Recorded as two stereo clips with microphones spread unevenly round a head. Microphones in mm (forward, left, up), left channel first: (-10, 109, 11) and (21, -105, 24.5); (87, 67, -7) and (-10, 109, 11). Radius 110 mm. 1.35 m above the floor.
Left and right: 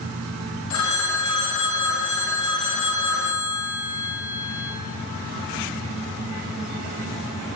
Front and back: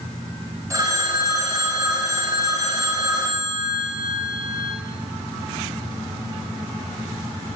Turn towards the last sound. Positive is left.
turn(degrees=100)